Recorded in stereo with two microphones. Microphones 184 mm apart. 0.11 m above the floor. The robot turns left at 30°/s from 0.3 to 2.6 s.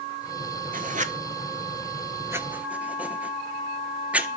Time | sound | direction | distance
0.7 | writing | 50° right (ahead or behind) | 0.5 m